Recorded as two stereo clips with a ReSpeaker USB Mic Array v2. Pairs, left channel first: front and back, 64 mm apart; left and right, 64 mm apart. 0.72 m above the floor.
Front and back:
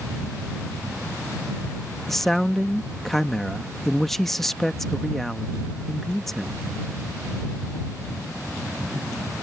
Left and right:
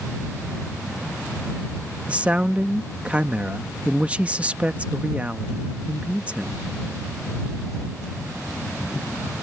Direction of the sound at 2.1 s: 85° right.